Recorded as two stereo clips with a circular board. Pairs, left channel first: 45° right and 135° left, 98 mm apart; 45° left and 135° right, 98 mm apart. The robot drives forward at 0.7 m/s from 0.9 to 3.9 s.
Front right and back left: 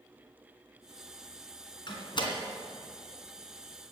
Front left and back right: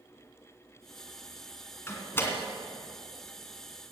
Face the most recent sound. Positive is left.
turn(degrees=-35)